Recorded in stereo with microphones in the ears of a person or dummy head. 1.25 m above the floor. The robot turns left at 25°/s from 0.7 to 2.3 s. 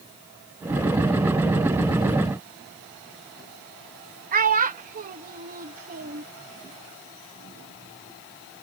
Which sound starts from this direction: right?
A child speaking, at 4.3 s.